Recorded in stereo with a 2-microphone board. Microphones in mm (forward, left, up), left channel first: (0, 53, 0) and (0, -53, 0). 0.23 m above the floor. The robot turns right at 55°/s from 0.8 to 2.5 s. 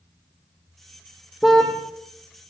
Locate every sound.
1.4 s a car horn: 5° right (ahead or behind), 4.5 m; by 1.7 s 15° left (ahead or behind), 4.5 m